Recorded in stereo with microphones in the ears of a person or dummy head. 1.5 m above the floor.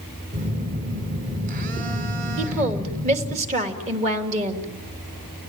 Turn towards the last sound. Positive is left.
turn(degrees=-40)  # may be behind; listen again after turning